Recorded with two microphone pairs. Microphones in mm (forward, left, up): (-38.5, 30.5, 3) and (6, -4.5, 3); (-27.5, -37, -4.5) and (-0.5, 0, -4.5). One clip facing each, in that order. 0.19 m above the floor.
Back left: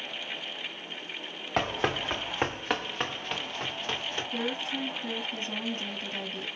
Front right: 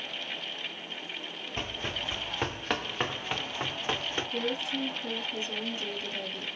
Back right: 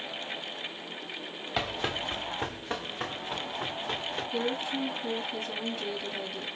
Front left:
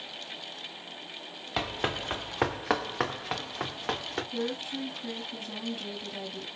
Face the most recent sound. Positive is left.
turn(degrees=135)